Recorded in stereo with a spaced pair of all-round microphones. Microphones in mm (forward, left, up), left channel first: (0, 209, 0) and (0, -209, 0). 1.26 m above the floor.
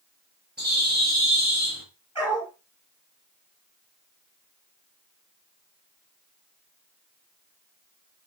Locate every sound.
0.6 s a bird: 25° right (ahead or behind), 4.5 m
2.1 s a dog barking: 10° left (ahead or behind), 4.5 m